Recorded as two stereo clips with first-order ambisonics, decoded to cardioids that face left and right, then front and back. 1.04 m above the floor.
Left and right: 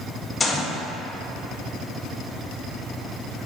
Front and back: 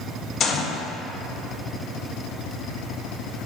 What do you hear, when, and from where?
0.4 s a gunshot: 25° left, 0.7 m